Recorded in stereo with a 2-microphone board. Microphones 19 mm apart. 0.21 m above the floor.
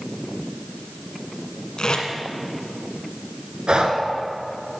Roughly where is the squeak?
I don't hear a squeak.